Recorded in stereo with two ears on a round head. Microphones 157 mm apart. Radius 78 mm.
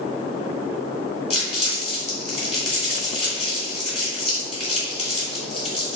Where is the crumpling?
35° left (ahead or behind), 1.4 m.